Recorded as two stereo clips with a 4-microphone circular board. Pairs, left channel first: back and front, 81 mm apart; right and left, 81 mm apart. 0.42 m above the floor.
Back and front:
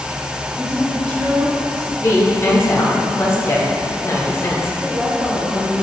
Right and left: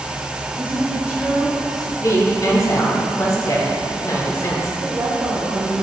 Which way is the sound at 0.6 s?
30° left.